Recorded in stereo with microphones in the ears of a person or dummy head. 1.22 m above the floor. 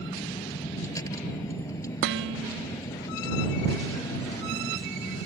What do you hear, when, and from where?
0.0 s a vehicle: 15° left (ahead or behind)
2.0 s dishes clattering: 65° right (ahead or behind)